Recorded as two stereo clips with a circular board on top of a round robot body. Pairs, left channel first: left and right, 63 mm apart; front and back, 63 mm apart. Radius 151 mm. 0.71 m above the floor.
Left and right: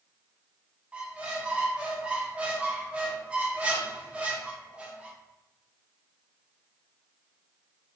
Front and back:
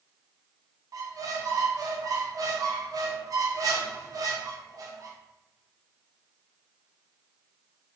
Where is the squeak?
160° right, 0.7 m.